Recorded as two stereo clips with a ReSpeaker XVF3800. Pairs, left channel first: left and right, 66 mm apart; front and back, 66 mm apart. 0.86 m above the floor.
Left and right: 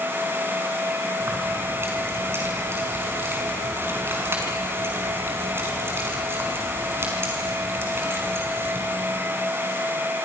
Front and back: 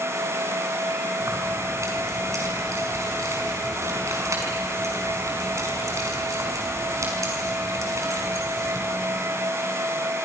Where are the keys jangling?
145° right, 5.5 m.